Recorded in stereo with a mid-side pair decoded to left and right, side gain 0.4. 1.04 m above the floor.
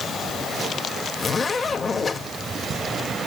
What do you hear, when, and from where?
1.2 s a zipper: 35° left, 1.9 m